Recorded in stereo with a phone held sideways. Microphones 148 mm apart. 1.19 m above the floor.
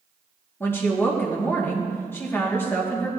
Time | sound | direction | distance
0.6 | a woman speaking | 15° left (ahead or behind) | 1.5 m